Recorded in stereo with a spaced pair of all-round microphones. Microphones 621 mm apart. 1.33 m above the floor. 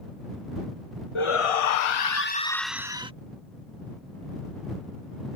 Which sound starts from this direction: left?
A shout, at 1.1 s.